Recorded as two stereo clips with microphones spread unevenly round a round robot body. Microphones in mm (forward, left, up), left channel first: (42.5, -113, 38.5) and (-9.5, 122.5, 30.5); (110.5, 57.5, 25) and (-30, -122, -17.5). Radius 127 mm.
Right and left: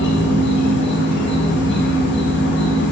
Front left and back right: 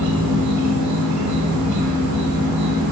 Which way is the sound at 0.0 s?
125° right.